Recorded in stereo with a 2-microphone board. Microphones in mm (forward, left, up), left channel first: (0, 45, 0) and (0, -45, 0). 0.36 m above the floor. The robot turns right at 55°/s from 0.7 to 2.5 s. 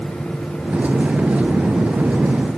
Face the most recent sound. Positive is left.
No sound to turn to.